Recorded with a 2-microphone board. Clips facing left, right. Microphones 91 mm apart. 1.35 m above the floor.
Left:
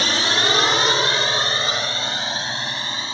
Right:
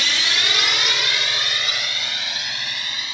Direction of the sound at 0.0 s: 35° left (ahead or behind).